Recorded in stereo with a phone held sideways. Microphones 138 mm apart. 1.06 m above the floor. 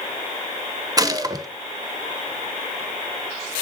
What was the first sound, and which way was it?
A gunshot, 25° right (ahead or behind).